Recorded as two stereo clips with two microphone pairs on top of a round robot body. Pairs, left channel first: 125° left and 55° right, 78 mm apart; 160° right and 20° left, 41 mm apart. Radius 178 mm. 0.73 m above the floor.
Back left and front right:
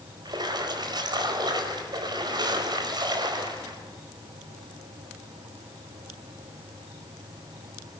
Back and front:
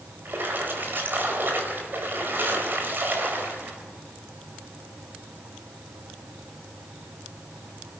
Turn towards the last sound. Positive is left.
turn(degrees=-20)